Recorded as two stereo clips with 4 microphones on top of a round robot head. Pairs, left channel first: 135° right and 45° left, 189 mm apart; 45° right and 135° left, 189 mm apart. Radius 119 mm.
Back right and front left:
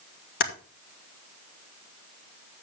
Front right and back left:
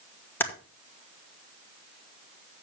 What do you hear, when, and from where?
0.4 s typing on a keyboard: 120° right, 2 m